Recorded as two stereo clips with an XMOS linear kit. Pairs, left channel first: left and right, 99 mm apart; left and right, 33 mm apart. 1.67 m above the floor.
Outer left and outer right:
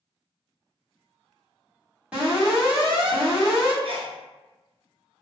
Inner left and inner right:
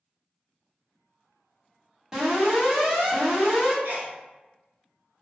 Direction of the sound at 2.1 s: 10° right (ahead or behind).